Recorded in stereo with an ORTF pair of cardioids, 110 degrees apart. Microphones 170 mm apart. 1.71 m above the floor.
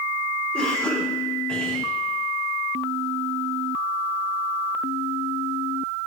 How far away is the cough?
About 8.5 m.